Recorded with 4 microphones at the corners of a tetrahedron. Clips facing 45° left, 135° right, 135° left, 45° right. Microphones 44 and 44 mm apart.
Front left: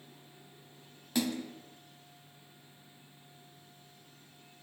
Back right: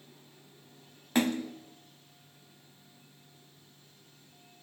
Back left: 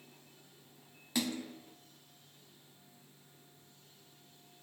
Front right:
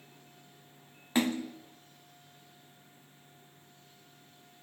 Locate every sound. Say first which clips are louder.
1.1 s a splash: back right 5 dB, front right 7 dB; 95° right, 1.5 m